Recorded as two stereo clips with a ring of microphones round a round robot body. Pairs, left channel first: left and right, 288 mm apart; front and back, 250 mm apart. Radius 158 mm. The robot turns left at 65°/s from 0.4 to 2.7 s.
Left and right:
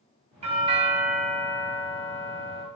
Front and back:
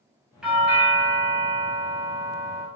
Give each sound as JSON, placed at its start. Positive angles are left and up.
{"t": 0.4, "sound": "a doorbell", "azimuth_deg": -100, "distance_m": 1.0}